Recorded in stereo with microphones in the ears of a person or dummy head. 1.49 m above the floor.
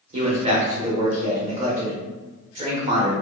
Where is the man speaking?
40° right (ahead or behind), 0.9 m.